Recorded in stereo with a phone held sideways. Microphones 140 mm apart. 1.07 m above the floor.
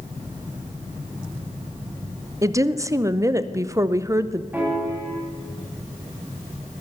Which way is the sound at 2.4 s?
20° right (ahead or behind).